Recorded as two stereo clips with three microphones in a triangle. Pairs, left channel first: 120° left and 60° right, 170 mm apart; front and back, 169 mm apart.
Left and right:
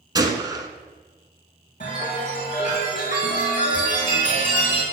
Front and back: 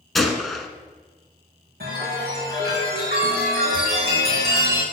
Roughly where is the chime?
Behind.